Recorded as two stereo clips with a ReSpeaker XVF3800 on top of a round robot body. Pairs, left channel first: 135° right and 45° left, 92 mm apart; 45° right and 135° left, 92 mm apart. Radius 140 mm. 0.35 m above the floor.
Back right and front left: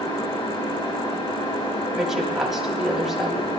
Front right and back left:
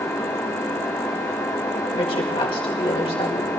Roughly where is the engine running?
Right.